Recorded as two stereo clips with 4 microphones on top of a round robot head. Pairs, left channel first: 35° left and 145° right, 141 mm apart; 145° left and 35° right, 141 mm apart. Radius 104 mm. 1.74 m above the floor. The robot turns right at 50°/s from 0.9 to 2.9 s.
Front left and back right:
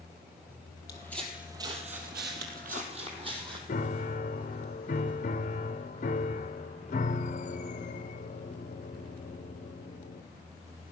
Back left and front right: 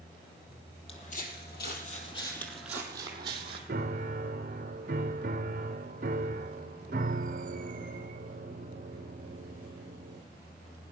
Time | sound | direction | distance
0.9 | footsteps | 95° left | 2.5 m
3.7 | a piano | 5° right | 0.8 m